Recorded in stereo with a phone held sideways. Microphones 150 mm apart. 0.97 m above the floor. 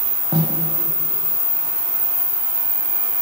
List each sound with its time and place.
0.3 s a snare drum: 35° right (ahead or behind), 2.5 m